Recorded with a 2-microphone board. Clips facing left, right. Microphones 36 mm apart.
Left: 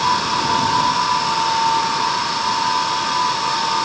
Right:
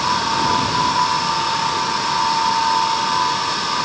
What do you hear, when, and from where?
Only background noise.